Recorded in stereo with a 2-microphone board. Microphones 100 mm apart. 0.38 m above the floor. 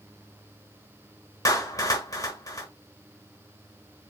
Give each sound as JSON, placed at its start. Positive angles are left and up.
{"t": 1.4, "sound": "a clap", "side_deg": 40, "distance_m": 1.2}